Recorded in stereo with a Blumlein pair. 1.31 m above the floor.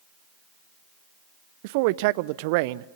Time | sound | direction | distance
1.6 | a man speaking | 45° right | 0.6 m